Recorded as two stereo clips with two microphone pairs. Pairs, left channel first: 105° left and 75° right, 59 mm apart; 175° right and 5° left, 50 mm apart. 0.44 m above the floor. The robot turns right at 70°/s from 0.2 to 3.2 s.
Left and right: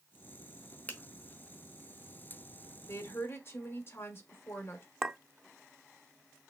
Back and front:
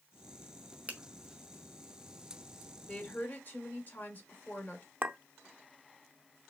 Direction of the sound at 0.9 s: 55° left.